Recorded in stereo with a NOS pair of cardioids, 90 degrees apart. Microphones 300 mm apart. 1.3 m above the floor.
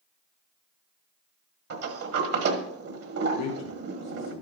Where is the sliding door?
55° right, 1.4 m.